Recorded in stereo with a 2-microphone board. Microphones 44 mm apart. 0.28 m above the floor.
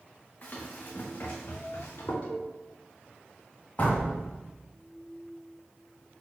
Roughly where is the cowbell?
Left.